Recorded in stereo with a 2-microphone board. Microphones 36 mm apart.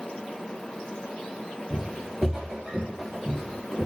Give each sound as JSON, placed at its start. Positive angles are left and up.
{"t": 1.7, "sound": "footsteps", "side_deg": -15, "distance_m": 1.2}